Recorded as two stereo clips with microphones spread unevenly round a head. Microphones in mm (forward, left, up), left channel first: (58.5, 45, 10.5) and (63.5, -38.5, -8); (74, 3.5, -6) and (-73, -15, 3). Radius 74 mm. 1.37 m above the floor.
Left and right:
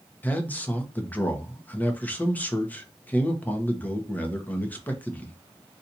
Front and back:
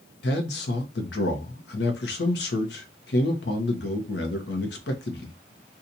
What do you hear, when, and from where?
0.2 s a man speaking: 25° left, 0.9 m